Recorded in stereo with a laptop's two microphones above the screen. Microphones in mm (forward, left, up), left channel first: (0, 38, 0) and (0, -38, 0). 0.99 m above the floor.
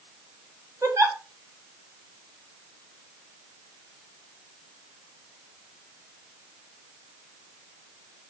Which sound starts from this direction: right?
A giggle, at 0.8 s.